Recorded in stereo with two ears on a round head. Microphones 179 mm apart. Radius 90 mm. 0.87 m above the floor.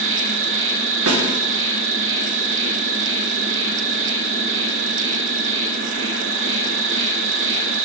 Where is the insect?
60° right (ahead or behind), 1.0 m.